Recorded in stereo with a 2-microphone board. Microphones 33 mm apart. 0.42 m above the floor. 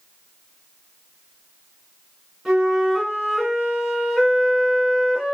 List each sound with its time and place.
2.5 s a flute: 10° right (ahead or behind), 2.5 m